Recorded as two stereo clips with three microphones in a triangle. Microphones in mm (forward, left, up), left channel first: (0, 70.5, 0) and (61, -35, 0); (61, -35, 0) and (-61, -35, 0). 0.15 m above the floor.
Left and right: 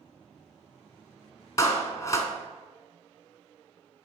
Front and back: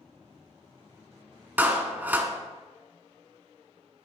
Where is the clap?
130° left, 0.9 m.